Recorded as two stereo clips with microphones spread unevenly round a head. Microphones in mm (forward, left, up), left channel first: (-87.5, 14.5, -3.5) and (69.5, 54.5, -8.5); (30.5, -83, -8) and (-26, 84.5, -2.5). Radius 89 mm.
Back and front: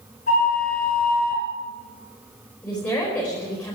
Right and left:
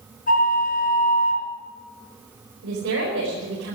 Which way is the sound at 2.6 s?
115° left.